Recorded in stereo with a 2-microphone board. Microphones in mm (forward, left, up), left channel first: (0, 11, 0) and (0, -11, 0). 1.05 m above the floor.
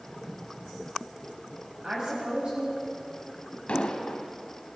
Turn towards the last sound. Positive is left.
turn(degrees=75)  # may be behind; listen again after turning